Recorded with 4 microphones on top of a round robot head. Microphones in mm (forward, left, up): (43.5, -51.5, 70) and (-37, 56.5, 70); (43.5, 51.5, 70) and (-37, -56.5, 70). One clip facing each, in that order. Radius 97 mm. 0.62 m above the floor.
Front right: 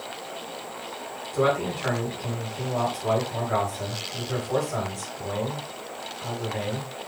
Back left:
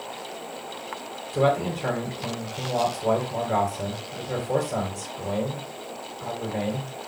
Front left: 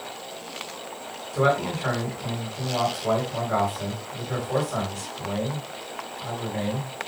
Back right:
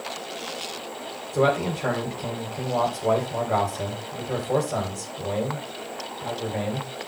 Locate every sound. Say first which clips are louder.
1.3 s a man speaking: back left 1 dB, back right 1 dB; straight behind, 4 m